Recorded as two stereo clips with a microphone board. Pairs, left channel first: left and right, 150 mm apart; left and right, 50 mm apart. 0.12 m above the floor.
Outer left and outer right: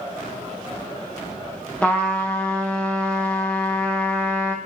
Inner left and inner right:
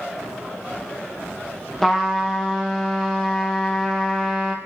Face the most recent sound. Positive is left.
turn(degrees=5)  # may be behind; listen again after turning